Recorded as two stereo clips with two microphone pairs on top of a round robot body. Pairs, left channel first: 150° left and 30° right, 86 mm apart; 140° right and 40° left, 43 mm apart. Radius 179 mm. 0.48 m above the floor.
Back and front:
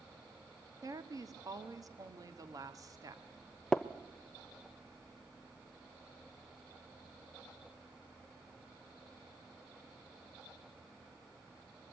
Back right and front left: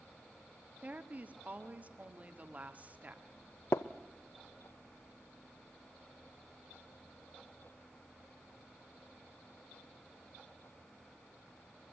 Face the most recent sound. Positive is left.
turn(degrees=-130)